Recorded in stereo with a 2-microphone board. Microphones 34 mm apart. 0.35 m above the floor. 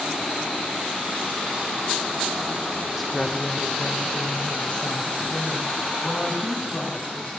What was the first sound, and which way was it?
A woman speaking, centre (ahead or behind).